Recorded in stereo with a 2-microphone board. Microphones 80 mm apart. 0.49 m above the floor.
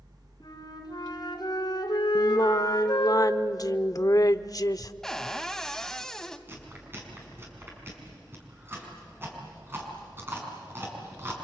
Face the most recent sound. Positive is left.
turn(degrees=-30)  # may be behind; listen again after turning